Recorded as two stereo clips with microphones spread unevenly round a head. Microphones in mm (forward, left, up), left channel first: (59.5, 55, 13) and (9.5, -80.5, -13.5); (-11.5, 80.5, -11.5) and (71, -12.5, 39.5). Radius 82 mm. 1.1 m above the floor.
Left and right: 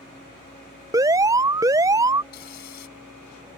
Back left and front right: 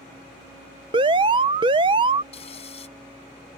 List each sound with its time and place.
0.9 s an alarm: 110° right
2.3 s frying: 90° left